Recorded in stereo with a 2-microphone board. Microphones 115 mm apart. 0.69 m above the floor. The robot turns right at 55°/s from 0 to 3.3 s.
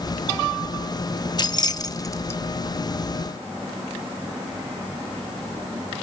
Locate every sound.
1.4 s keys jangling: 35° left (ahead or behind), 0.6 m; by 2.4 s 20° left (ahead or behind), 0.6 m